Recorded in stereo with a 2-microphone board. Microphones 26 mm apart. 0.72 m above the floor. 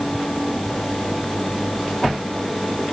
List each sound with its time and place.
Only background noise.